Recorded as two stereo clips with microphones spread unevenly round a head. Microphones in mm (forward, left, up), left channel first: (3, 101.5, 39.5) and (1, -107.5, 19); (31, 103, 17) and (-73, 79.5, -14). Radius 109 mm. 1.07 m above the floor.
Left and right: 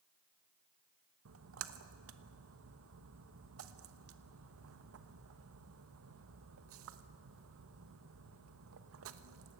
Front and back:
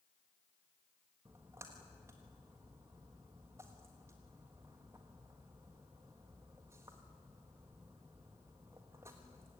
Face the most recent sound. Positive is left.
turn(degrees=-95)